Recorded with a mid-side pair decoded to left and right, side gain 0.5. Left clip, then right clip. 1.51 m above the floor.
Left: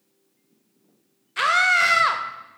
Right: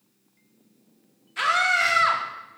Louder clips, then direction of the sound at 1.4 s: Left 3 dB; 35° left.